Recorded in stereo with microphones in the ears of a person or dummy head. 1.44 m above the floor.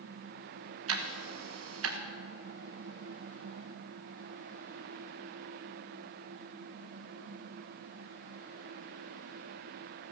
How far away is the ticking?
About 1.3 m.